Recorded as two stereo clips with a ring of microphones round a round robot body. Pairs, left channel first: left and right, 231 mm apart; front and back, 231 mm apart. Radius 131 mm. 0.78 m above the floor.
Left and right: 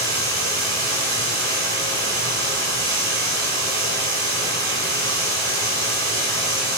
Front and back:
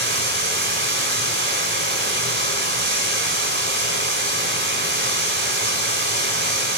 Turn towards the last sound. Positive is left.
turn(degrees=-145)